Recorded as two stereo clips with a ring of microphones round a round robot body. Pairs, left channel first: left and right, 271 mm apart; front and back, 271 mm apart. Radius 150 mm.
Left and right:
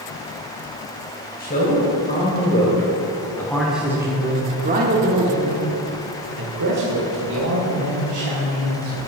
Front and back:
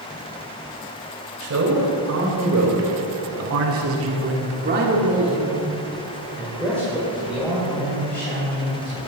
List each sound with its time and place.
1.4 s a man speaking: 150° left, 3 m; by 9.0 s 70° right, 3.5 m